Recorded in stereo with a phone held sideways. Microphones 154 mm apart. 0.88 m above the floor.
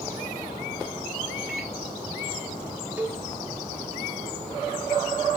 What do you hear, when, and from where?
1.5 s a microwave: 10° left (ahead or behind), 2.5 m
3.0 s a cowbell: 10° right (ahead or behind), 0.7 m